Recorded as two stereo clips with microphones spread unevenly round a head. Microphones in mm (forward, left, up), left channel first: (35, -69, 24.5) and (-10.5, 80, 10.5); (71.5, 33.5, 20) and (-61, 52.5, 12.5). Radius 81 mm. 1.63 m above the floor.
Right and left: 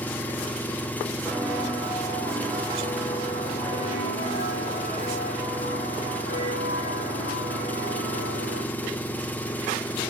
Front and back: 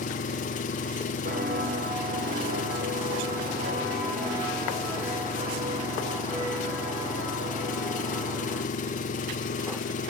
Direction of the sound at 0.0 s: 5° left.